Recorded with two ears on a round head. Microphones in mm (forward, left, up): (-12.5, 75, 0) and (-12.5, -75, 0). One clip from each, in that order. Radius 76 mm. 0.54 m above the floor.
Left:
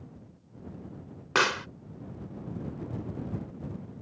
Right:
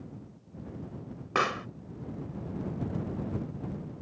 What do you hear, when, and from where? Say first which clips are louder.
1.4 s a pop: left 3 dB; 65° left (ahead or behind)